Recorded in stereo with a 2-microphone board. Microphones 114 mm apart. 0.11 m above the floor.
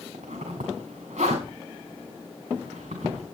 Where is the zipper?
85° right, 7.5 m.